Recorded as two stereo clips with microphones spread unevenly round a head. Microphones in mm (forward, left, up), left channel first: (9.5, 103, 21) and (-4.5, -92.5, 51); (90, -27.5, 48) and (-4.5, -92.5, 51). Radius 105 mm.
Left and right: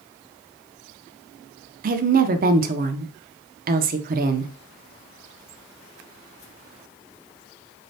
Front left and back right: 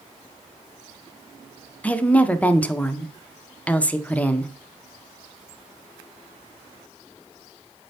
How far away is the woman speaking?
About 0.5 m.